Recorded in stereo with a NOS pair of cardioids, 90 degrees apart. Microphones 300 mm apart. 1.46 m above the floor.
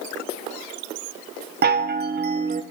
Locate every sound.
1.6 s a chime: 35° right, 0.8 m